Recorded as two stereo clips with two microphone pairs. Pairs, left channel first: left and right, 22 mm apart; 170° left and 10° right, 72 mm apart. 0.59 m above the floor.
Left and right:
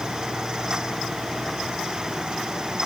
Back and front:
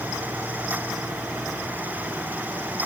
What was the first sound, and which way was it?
Only background noise.